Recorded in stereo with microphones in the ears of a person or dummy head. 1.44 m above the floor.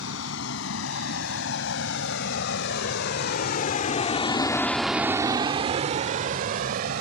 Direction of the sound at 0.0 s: 85° left.